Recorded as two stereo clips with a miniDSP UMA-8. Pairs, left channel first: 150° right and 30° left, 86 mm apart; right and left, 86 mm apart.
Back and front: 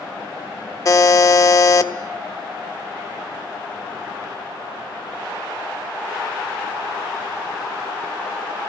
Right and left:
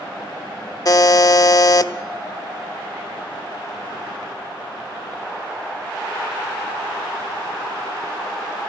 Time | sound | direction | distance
0.8 | a buzzer | 115° right | 1.0 m